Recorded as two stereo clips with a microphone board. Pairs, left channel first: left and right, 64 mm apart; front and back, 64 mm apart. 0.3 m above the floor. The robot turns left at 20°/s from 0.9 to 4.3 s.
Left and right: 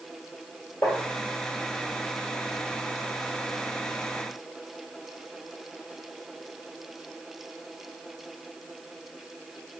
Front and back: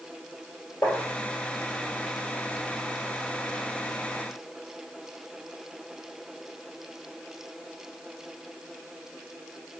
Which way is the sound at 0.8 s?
45° left.